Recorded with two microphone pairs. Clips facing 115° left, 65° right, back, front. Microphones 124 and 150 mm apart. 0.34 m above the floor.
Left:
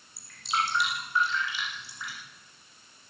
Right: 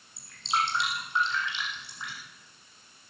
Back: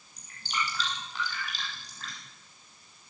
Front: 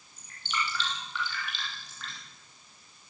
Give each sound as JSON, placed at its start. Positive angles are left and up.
{"t": 0.2, "sound": "dripping", "azimuth_deg": -130, "distance_m": 9.0}